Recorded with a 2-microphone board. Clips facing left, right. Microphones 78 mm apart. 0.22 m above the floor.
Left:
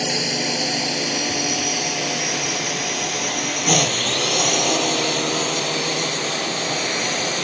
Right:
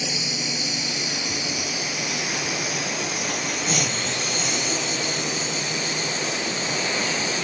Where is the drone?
70° left (ahead or behind); by 7.4 s 75° left (ahead or behind).